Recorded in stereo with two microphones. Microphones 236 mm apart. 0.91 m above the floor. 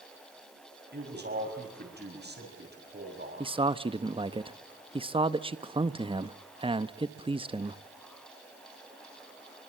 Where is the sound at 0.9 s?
45° right (ahead or behind), 6.5 m.